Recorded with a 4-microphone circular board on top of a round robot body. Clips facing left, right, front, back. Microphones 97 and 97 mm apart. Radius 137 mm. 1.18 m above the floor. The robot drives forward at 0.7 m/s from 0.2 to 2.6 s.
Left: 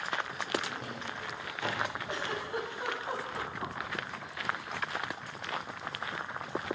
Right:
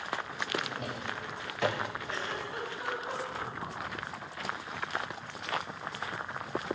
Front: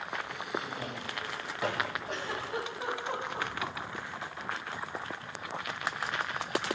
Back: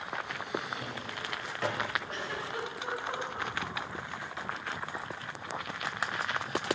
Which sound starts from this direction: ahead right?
A drawer, at 0.6 s.